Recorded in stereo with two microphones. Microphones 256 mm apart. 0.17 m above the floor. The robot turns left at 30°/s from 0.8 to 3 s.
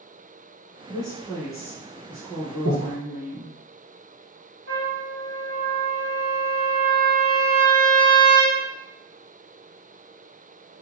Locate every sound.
0.9 s a woman speaking: 20° left (ahead or behind), 1.5 m; by 3.6 s 5° right (ahead or behind), 1.5 m
2.6 s breathing: 75° left (ahead or behind), 1.0 m
4.7 s a trumpet: 50° right (ahead or behind), 0.9 m